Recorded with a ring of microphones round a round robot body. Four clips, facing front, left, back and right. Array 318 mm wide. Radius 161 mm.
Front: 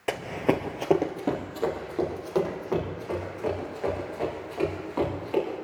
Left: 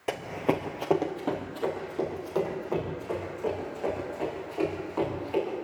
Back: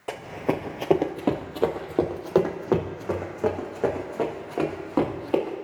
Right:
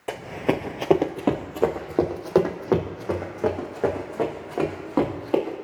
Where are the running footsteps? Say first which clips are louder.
Right 3 dB, front 2 dB; 5° left, 0.9 m; by 5.5 s 130° right, 4 m.